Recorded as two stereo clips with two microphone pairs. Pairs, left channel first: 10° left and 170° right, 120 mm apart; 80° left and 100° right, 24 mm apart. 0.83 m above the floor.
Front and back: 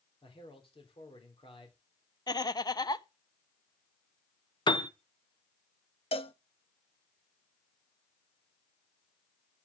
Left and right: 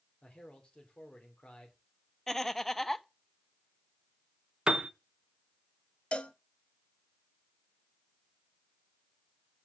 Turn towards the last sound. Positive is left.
turn(degrees=45)